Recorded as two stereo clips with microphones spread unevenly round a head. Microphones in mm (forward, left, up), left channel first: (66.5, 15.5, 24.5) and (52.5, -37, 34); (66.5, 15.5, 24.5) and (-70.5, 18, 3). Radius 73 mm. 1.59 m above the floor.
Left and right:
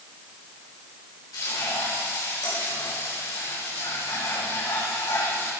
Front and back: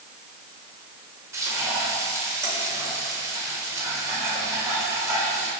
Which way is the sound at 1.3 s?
105° left.